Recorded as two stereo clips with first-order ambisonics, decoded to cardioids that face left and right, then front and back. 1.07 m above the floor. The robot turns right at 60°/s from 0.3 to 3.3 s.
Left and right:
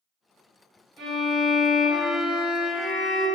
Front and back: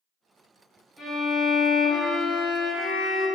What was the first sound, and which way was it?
A violin, 85° right.